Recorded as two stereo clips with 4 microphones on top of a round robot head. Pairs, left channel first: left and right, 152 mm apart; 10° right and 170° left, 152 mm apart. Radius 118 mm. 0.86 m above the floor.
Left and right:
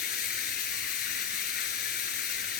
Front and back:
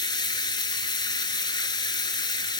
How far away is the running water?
About 1.2 m.